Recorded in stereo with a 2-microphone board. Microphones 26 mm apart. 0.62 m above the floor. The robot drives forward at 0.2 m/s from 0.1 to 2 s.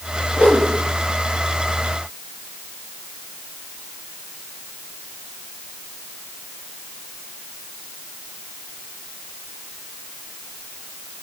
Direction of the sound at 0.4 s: 85° left.